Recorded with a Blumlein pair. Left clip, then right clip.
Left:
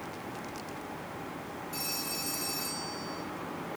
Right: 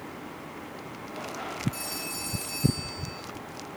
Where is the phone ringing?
Straight ahead, 5.5 m.